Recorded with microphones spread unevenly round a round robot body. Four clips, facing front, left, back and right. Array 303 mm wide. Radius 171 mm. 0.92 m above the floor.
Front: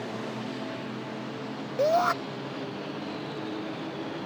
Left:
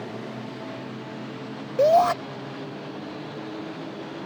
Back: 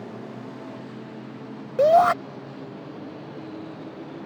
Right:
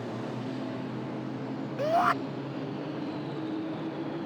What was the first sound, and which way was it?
A shout, 170° left.